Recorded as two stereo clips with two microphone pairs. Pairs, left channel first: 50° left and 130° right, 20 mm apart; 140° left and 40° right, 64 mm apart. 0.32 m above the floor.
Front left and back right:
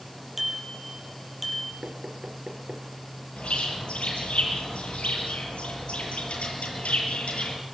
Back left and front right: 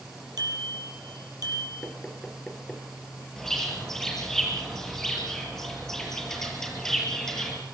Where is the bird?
55° left, 8 m.